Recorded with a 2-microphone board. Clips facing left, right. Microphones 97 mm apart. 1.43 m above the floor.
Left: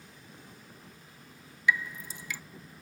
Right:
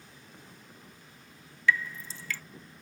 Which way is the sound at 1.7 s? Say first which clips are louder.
Right 1 dB; 15° left (ahead or behind).